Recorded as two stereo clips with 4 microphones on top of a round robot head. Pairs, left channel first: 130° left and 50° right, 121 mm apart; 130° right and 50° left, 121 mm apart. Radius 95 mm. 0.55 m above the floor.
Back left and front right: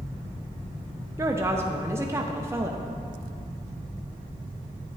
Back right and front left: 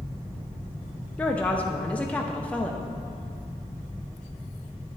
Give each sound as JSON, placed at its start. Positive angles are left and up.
{"t": 1.2, "sound": "a woman speaking", "azimuth_deg": -70, "distance_m": 0.8}